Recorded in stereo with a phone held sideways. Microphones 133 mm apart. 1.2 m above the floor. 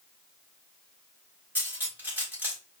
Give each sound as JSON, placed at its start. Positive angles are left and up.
{"t": 1.6, "sound": "cutlery clinking", "side_deg": -15, "distance_m": 2.5}